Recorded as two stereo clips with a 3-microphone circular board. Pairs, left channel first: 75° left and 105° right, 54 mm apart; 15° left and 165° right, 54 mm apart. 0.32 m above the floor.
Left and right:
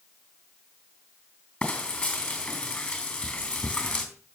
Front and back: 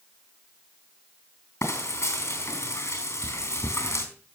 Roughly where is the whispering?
I don't hear whispering.